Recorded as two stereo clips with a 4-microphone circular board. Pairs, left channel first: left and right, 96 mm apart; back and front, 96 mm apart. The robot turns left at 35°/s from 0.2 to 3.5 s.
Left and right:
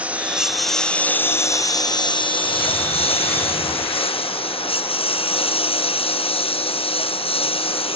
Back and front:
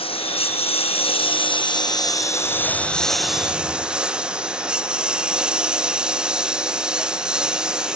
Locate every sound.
0.0 s a lawn mower: 165° right; by 8.0 s 80° left